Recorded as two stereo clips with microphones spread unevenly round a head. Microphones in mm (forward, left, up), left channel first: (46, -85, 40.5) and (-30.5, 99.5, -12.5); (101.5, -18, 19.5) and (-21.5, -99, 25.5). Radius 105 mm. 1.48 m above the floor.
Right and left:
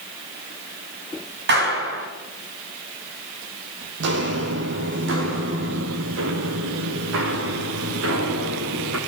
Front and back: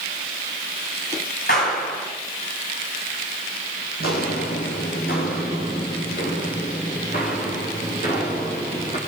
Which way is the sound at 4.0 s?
75° left.